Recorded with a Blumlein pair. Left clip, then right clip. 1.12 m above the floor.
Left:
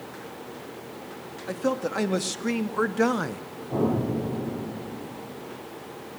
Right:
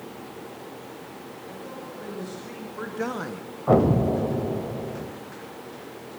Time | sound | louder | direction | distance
1.5 | a man speaking | left 14 dB | 55° left | 2.5 m
3.7 | an explosion | right 7 dB | 45° right | 3 m